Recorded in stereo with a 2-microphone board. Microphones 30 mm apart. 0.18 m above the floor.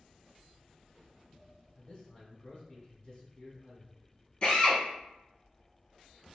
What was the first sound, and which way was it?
A man speaking, 35° left (ahead or behind).